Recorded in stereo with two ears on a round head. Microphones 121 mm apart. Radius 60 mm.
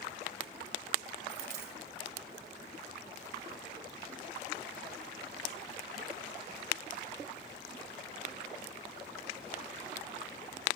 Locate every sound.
1.3 s a dropped coin: 85° right, 2.0 m